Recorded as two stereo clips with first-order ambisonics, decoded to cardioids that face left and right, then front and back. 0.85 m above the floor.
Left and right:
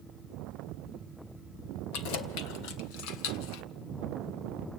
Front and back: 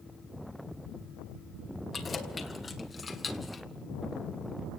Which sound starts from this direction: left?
Keys jangling, at 1.9 s.